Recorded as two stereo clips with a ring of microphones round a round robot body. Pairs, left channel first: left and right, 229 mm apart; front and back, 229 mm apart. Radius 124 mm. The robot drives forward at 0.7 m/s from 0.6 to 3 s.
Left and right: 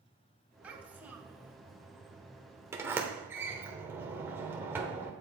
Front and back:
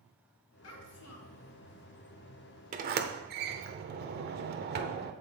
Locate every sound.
0.6 s a child speaking: 5° right, 2 m; by 1.5 s 10° right, 1.5 m
2.7 s a sliding door: 160° right, 0.8 m; by 5.1 s 165° right, 0.9 m